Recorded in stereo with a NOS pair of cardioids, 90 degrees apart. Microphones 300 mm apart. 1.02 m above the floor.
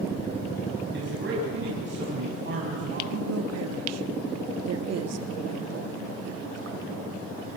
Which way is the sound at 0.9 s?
40° right.